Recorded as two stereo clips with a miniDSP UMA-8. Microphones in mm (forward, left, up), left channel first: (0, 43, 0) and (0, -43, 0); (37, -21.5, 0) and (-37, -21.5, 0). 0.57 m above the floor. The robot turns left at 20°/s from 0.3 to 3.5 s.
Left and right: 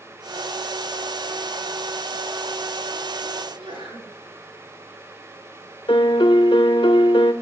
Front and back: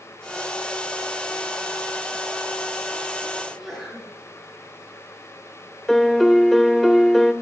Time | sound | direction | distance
3.4 | a sneeze | 95° right | 9 m
5.9 | a piano | 90° left | 0.8 m